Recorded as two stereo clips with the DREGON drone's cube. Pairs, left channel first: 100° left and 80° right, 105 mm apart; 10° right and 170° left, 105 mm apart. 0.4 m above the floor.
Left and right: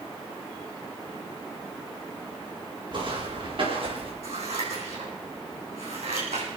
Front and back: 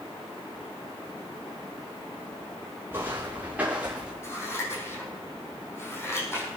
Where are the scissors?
75° right, 4.5 m.